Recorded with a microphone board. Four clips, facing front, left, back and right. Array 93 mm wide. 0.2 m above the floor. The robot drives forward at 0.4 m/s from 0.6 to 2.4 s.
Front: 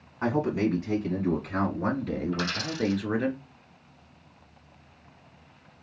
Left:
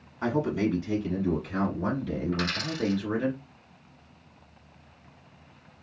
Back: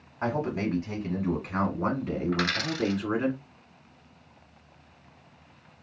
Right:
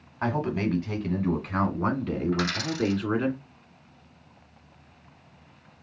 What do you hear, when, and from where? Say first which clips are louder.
0.2 s a man speaking: left 1 dB, front 3 dB; 90° right, 1.3 m; by 3.3 s 125° right, 1.5 m
2.3 s a dropped coin: right 3 dB, back 2 dB; 165° right, 1.0 m